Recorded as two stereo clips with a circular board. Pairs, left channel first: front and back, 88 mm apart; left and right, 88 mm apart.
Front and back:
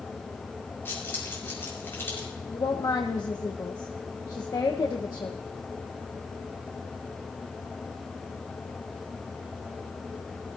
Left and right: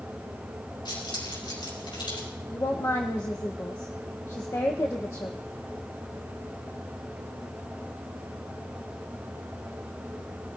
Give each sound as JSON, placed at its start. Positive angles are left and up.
{"t": 0.8, "sound": "keys jangling", "azimuth_deg": 65, "distance_m": 5.5}
{"t": 2.5, "sound": "a woman speaking", "azimuth_deg": 40, "distance_m": 1.2}